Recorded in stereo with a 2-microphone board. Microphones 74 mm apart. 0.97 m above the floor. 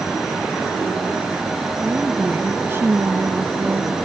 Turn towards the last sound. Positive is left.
turn(degrees=-50)  # may be behind; listen again after turning